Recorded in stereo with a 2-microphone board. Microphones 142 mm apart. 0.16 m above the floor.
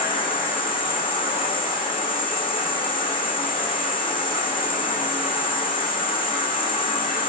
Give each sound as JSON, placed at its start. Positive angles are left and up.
{"t": 0.0, "sound": "an insect", "side_deg": 40, "distance_m": 3.0}